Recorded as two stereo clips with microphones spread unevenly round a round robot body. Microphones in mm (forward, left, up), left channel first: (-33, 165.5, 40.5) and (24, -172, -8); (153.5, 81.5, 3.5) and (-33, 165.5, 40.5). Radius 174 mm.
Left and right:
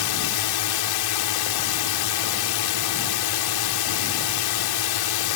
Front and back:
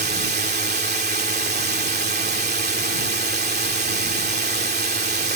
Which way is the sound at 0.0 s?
115° left.